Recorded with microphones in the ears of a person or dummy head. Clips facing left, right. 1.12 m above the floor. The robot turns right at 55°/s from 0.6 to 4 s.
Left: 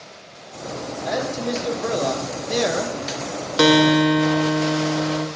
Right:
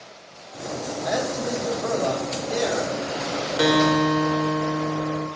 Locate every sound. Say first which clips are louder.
1.1 s a man speaking: left 1 dB; 5° right, 1.0 m; by 3.0 s 100° left, 1.0 m
3.6 s a guitar: left 5 dB; 55° left (ahead or behind), 0.7 m; by 5.3 s 65° left (ahead or behind), 0.7 m